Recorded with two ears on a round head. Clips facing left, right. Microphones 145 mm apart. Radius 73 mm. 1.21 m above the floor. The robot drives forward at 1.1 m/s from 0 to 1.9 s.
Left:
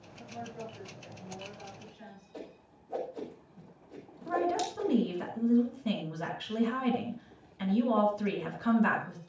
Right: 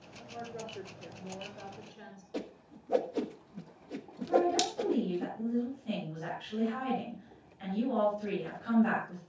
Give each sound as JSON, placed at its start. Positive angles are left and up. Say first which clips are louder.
{"t": 0.2, "sound": "a woman speaking", "louder": "even", "side_deg": -45, "distance_m": 10.0}
{"t": 2.3, "sound": "a whoosh", "louder": "right 7 dB", "side_deg": -70, "distance_m": 1.4}
{"t": 4.2, "sound": "a woman speaking", "louder": "right 2 dB", "side_deg": 80, "distance_m": 6.0}